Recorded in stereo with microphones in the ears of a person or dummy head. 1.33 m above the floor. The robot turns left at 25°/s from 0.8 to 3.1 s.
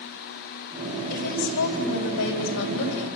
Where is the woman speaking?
120° left, 4.5 m; by 3.1 s 70° left, 4.5 m.